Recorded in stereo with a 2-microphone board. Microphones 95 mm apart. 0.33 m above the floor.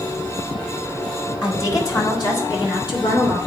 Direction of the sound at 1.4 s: 40° left (ahead or behind).